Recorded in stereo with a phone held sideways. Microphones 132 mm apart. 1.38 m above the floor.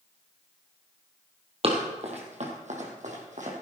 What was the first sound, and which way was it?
Running footsteps, 45° right (ahead or behind).